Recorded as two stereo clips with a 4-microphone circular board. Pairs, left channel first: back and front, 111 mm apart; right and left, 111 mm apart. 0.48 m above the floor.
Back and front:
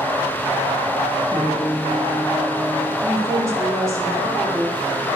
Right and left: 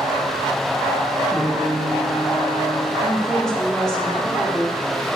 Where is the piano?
5° right, 2 m.